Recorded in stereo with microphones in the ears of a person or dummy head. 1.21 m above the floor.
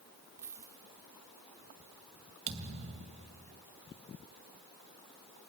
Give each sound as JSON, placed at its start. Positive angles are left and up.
{"t": 0.4, "sound": "a dropped coin", "side_deg": -15, "distance_m": 2.5}
{"t": 2.5, "sound": "a thud", "side_deg": -35, "distance_m": 2.5}